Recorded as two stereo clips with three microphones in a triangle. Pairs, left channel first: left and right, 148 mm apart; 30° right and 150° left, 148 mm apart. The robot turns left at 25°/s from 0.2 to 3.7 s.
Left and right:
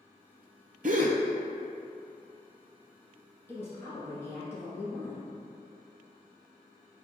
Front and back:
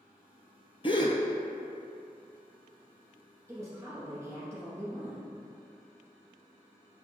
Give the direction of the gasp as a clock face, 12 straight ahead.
3 o'clock.